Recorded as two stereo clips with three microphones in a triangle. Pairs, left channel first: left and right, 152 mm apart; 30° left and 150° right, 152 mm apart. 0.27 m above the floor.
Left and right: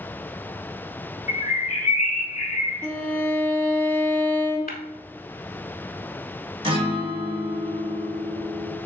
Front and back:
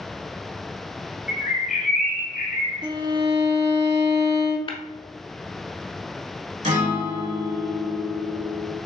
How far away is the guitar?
About 1.6 m.